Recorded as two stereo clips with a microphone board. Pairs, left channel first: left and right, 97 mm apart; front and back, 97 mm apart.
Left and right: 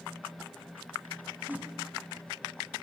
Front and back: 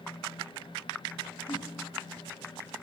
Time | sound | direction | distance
1.5 | a whoosh | 15° right | 0.8 m